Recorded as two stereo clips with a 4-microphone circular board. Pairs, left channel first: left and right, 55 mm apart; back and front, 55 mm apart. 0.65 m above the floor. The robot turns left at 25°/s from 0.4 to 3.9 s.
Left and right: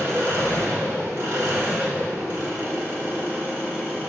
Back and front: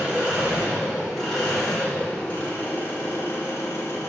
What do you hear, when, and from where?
0.0 s an engine running: 70° right, 1.0 m; by 4.1 s 155° right, 1.0 m